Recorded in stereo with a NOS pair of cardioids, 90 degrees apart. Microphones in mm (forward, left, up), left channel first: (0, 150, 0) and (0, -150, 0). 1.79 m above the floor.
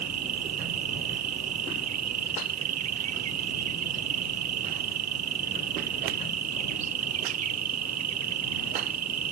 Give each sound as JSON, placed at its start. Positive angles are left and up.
{"t": 0.0, "sound": "an insect", "azimuth_deg": -65}